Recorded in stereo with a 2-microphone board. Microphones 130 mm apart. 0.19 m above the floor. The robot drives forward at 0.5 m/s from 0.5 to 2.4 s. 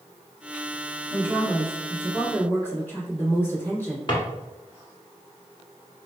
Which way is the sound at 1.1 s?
20° left (ahead or behind).